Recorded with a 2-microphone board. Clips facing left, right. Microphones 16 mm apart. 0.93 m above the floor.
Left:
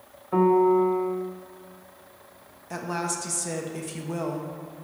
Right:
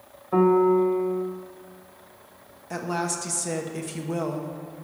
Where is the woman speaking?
5° right (ahead or behind), 1.0 m.